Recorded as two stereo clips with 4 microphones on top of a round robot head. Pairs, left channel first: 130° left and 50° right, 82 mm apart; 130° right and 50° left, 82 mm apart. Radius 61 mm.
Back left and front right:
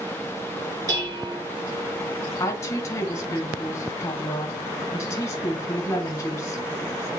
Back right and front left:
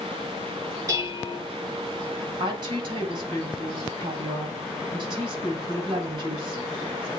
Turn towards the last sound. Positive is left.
turn(degrees=75)